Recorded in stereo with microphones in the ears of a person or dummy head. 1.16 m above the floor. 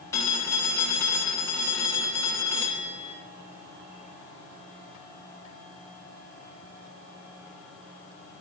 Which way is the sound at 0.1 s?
15° left (ahead or behind).